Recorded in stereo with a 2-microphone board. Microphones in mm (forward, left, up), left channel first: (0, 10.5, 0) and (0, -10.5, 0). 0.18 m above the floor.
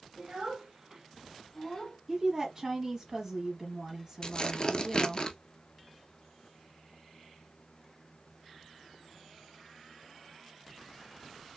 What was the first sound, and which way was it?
A child speaking, 40° right (ahead or behind).